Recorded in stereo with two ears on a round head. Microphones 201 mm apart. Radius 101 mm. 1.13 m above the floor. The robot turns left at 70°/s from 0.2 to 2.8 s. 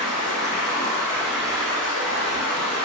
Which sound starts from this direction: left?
Running water, at 0.0 s.